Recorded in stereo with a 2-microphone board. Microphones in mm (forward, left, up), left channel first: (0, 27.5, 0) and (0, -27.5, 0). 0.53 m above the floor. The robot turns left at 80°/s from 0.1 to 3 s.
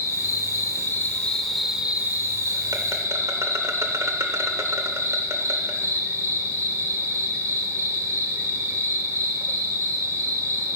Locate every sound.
0.0 s an insect: 120° left, 1.0 m; by 10.8 s 115° right, 1.0 m